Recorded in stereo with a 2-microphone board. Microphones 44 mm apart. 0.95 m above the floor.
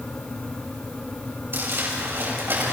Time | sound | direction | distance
1.5 | crumpling | 55° right (ahead or behind) | 6.5 m